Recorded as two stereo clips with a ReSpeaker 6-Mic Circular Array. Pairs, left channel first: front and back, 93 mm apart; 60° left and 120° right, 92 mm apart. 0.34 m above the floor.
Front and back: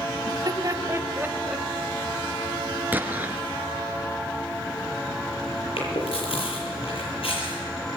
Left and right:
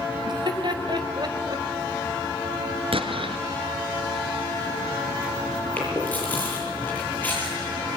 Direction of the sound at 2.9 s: 110° right.